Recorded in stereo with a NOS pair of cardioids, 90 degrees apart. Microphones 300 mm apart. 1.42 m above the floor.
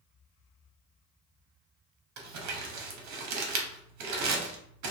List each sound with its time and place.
2.2 s crumpling: 70° right, 0.7 m